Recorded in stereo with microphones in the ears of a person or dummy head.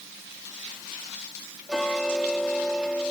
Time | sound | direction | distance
1.7 | ticking | 5° left (ahead or behind) | ?